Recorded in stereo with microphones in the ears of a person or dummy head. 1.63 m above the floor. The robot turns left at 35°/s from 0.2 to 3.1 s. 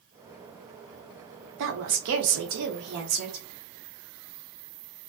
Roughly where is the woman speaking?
Right.